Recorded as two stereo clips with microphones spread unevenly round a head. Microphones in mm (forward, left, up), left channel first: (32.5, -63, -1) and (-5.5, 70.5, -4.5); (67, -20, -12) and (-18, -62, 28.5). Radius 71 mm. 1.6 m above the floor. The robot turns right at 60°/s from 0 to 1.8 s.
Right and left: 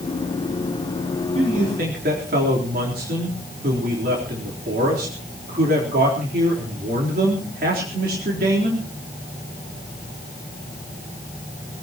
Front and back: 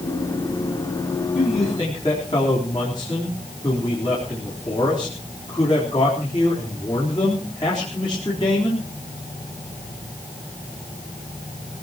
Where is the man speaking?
60° left, 4 m; by 8.8 s 90° left, 4 m.